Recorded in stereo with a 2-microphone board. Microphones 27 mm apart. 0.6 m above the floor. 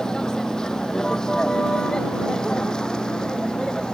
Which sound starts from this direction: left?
A vehicle, at 0.0 s.